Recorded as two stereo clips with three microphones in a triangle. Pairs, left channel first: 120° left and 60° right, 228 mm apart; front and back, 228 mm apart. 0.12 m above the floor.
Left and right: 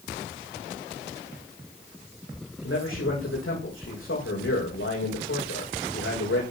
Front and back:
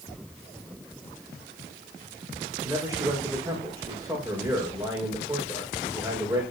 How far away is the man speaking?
About 8.5 m.